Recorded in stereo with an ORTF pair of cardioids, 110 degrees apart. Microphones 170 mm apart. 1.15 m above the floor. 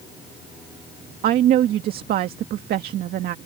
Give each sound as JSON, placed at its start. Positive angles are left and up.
{"t": 1.2, "sound": "a woman speaking", "azimuth_deg": -65}